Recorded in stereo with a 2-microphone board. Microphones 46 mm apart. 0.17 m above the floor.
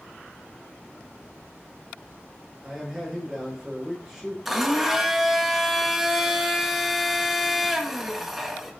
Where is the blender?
5° right (ahead or behind), 2.5 m.